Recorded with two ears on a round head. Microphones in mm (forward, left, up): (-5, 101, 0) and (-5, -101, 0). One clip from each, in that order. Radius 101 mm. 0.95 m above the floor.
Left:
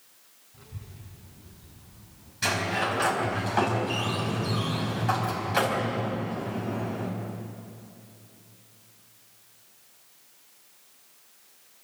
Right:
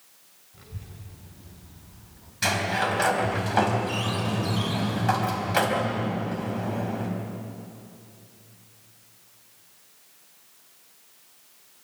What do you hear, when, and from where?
0.5 s a child speaking: 15° right (ahead or behind), 3 m; by 2.3 s 40° right (ahead or behind), 4 m
2.4 s a sliding door: 15° right (ahead or behind), 4 m